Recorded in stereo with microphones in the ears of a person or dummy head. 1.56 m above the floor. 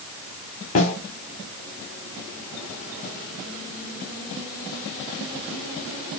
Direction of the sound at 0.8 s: 40° left (ahead or behind).